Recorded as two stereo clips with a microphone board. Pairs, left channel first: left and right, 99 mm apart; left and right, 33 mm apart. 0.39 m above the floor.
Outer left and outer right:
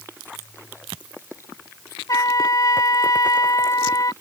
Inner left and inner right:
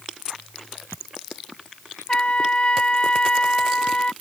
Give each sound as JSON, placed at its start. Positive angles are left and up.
{"t": 2.1, "sound": "a trumpet", "side_deg": 40}